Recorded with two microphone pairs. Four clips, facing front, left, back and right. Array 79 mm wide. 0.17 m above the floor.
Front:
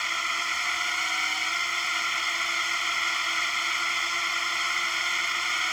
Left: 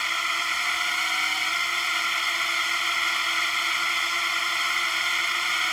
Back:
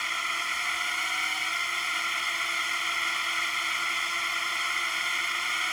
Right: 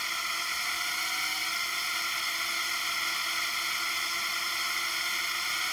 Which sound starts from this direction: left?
A drone, at 0.0 s.